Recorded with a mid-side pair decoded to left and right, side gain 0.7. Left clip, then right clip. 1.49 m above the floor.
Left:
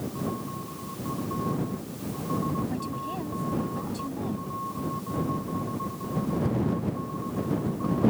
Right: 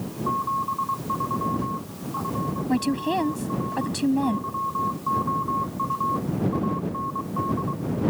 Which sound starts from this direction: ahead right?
A woman speaking, at 2.7 s.